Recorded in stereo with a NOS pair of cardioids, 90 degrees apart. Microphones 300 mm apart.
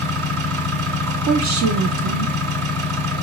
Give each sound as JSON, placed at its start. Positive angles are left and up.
{"t": 0.0, "sound": "an engine running", "azimuth_deg": -70, "distance_m": 1.9}
{"t": 1.1, "sound": "a woman speaking", "azimuth_deg": -65, "distance_m": 1.1}